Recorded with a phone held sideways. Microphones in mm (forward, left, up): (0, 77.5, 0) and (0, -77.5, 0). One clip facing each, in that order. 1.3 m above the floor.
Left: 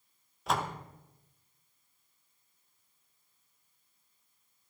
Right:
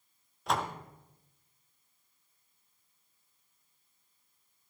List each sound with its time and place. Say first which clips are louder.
0.5 s a door slam: even; centre (ahead or behind), 1.0 m